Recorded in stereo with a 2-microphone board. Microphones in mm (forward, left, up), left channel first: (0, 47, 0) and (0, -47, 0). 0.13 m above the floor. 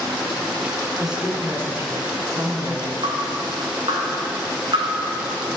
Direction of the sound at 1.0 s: 5° right (ahead or behind).